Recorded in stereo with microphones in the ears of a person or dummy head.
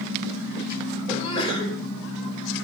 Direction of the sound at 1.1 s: 35° left (ahead or behind).